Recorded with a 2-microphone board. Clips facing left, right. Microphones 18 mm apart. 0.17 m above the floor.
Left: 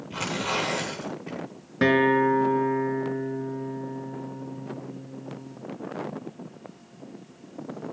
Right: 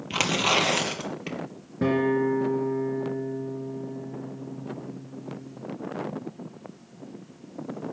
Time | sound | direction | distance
0.1 | tearing paper | 75° right (ahead or behind) | 2.5 m
1.8 | a guitar | 60° left (ahead or behind) | 1.5 m